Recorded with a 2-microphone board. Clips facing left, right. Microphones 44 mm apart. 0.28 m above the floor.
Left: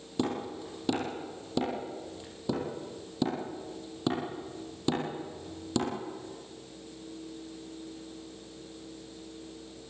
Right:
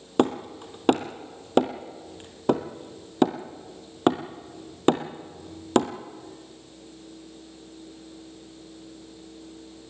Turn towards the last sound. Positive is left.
turn(degrees=-55)  # may be behind; listen again after turning